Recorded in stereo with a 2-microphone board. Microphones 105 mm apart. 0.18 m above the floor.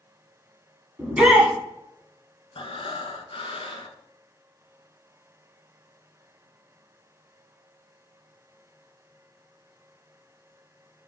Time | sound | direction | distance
1.0 | a shout | 10° right (ahead or behind) | 1.0 m
2.5 | breathing | 65° left (ahead or behind) | 0.5 m